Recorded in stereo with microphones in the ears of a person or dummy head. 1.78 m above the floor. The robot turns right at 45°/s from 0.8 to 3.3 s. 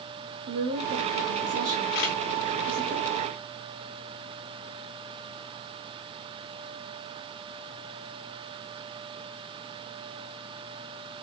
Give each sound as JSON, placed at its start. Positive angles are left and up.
{"t": 0.5, "sound": "a woman speaking", "azimuth_deg": -120, "distance_m": 1.9}
{"t": 1.9, "sound": "a camera shutter", "side_deg": 55, "distance_m": 2.0}